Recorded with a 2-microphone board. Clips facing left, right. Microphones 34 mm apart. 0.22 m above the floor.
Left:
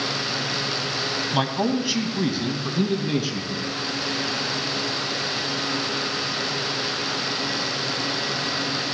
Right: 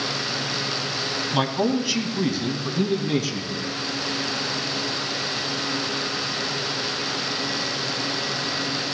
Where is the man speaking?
Centre (ahead or behind), 1.2 m; by 3.7 s 20° left (ahead or behind), 2.5 m.